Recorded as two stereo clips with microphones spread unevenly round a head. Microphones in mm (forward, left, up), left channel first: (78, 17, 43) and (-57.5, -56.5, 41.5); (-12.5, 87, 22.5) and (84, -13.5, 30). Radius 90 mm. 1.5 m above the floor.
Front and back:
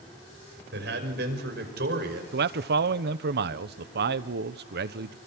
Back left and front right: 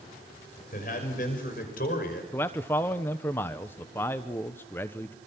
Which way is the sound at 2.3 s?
150° right.